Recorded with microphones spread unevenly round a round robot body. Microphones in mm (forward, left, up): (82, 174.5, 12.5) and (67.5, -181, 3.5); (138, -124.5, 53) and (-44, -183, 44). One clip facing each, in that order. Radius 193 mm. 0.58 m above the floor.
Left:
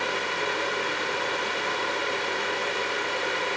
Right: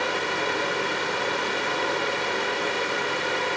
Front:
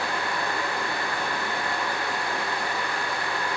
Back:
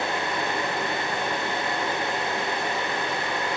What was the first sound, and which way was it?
Only background noise.